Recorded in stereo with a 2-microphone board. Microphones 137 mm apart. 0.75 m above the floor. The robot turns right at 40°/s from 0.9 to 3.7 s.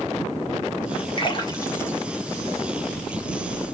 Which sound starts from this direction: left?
A splash, at 1.2 s.